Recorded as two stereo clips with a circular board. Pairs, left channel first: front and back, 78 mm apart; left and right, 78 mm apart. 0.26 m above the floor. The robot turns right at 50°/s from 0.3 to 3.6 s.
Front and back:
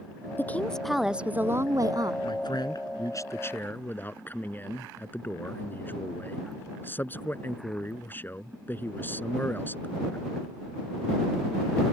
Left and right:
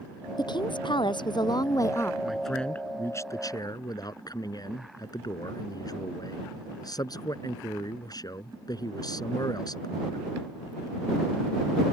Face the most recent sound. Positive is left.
turn(degrees=65)